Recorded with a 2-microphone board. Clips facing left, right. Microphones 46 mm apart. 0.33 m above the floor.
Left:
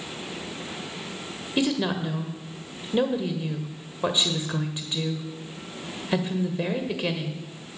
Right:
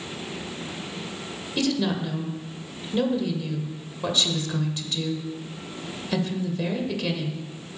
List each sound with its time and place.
1.6 s a woman speaking: 20° left (ahead or behind), 1.5 m